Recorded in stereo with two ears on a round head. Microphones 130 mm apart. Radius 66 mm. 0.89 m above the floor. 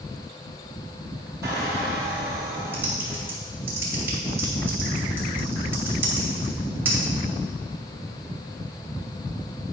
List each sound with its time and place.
1.4 s a squeak: 25° right (ahead or behind), 3.5 m
2.7 s typing on a keyboard: 15° right (ahead or behind), 2.5 m